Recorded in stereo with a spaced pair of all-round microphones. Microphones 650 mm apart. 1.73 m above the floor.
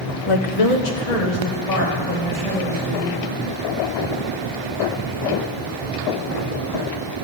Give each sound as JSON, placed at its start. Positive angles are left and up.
{"t": 0.3, "sound": "a woman speaking", "side_deg": 50, "distance_m": 0.7}